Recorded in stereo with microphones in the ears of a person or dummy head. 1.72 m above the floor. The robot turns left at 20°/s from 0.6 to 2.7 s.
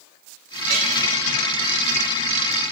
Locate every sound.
0.7 s a clink: 60° right (ahead or behind), 2.5 m